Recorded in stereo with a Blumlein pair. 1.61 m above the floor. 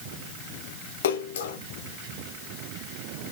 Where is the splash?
60° left, 0.8 m.